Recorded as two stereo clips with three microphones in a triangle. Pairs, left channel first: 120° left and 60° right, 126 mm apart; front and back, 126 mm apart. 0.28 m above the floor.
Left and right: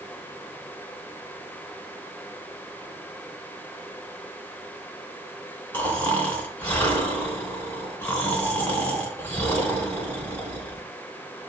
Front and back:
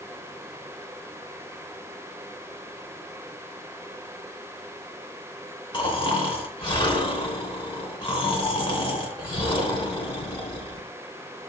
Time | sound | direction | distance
5.7 | snoring | 50° left | 3.5 m